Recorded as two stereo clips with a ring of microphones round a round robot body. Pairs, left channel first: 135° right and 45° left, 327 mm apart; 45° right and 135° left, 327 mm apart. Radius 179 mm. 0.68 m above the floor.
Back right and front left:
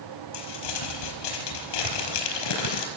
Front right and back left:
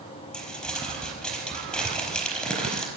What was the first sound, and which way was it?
Crumpling, 135° right.